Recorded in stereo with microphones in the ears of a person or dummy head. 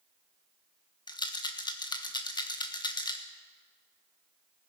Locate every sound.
1.1 s a rattle: 20° left (ahead or behind), 0.8 m